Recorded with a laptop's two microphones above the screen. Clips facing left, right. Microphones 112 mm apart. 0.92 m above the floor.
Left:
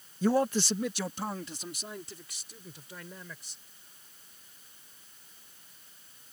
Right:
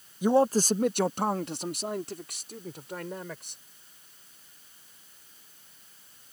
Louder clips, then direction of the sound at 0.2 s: Right 4 dB; 10° right (ahead or behind).